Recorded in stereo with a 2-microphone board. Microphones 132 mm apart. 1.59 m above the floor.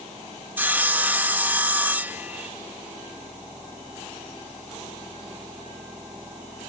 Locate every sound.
0.6 s sawing: 15° right (ahead or behind)